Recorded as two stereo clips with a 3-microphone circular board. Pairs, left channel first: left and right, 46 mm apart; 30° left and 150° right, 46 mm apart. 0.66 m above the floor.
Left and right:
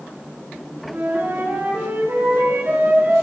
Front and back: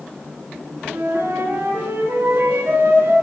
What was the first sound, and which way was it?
A flute, 125° right.